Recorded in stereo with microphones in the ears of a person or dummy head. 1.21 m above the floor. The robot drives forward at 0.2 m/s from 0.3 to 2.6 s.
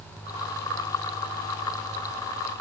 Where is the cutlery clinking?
No cutlery clinking in this recording.